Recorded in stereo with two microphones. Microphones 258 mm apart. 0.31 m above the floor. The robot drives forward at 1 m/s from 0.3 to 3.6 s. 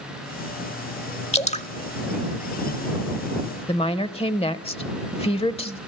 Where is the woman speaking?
25° left (ahead or behind), 0.9 m.